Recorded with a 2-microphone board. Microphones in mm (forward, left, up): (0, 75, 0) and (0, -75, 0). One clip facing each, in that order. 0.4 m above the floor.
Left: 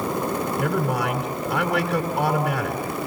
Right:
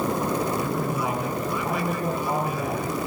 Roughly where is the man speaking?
Left.